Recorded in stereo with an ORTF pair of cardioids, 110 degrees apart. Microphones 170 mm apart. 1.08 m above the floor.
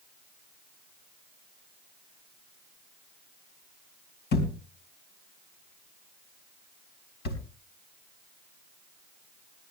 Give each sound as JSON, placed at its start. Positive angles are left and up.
{"t": 4.3, "sound": "a thud", "azimuth_deg": 65, "distance_m": 4.0}